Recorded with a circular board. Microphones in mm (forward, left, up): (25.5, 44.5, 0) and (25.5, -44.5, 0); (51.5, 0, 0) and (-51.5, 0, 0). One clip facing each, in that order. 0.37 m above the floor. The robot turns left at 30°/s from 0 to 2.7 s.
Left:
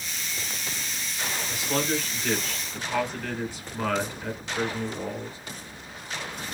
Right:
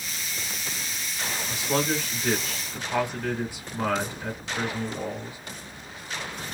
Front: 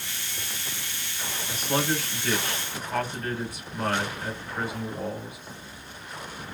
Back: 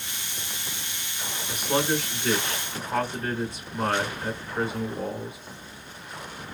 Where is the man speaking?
120° right, 1.3 m; by 5.4 s 155° right, 1.3 m.